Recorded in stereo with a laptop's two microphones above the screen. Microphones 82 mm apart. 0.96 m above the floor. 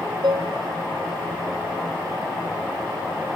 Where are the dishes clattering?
60° right (ahead or behind), 0.8 m.